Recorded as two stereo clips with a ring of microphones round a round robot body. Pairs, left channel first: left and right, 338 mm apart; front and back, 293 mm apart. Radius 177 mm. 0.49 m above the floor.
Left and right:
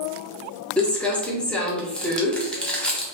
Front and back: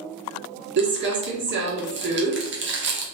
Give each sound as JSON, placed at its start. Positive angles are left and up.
{"t": 0.8, "sound": "crumpling", "azimuth_deg": 175, "distance_m": 1.1}